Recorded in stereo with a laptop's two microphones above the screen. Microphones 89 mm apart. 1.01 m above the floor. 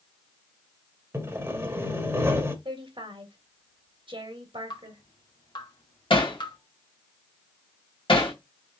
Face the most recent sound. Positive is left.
turn(degrees=70)  # may be behind; listen again after turning